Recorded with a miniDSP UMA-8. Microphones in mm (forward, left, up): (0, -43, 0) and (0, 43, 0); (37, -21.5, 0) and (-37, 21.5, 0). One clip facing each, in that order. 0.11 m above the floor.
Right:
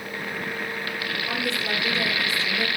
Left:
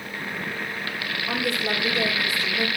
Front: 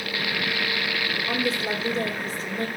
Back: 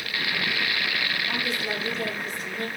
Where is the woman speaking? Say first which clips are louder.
Left 3 dB, front 3 dB; 20° left, 4 m.